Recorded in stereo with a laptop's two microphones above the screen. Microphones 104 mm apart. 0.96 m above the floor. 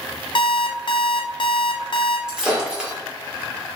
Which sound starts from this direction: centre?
Breaking glass, at 2.3 s.